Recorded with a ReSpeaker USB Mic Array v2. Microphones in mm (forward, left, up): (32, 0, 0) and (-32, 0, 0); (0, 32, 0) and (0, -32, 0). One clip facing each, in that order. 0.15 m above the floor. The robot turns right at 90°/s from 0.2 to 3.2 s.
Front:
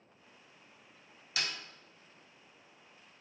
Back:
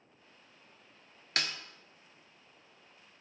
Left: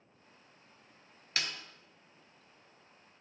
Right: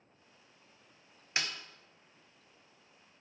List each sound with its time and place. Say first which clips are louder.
1.4 s a snare drum: back 2 dB, right 1 dB; 155° right, 0.6 m; by 1.5 s 145° right, 0.6 m